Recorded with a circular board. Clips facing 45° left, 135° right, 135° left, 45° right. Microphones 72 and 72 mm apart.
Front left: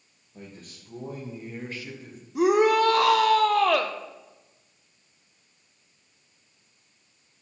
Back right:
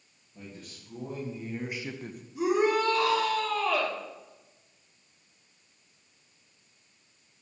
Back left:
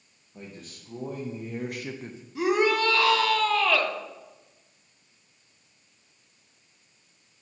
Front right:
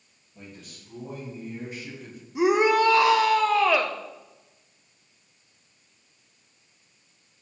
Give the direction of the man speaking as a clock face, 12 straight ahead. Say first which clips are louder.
Front left 1 dB, back left 2 dB; 9 o'clock.